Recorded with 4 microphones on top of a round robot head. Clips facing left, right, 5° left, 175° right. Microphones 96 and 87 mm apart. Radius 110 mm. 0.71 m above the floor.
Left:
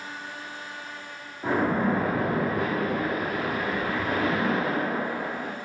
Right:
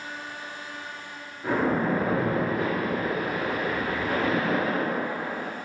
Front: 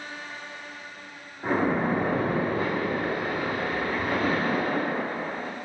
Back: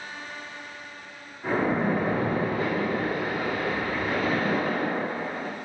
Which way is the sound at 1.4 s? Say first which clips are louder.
Even, even; 55° left.